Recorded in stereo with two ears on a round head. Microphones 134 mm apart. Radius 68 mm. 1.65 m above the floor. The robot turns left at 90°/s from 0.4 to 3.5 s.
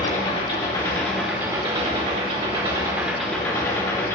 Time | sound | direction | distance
0.0 | an engine running | 70° left | 1.6 m